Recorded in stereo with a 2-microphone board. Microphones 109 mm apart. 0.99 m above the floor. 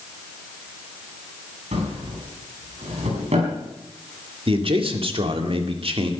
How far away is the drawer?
About 5.5 m.